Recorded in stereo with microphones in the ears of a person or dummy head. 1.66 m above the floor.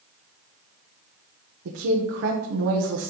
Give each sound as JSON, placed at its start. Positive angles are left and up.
{"t": 1.6, "sound": "a woman speaking", "side_deg": -65, "distance_m": 1.1}